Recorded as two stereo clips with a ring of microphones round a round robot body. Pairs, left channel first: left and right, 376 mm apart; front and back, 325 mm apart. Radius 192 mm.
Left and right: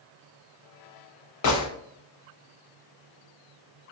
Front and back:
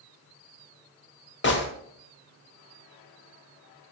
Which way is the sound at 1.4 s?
50° left.